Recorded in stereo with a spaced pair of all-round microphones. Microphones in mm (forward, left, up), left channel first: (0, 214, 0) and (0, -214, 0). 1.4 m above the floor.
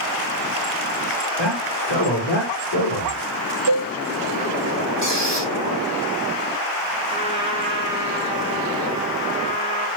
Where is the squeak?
70° left (ahead or behind), 4 m.